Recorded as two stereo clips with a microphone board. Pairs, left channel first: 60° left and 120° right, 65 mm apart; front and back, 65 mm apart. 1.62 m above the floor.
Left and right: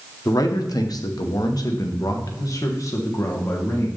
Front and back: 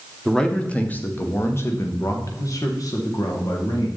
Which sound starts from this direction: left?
A man speaking, at 0.2 s.